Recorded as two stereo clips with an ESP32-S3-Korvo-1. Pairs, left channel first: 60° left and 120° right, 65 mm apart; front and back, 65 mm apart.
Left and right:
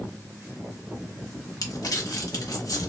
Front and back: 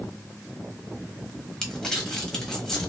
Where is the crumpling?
80° left, 0.8 m.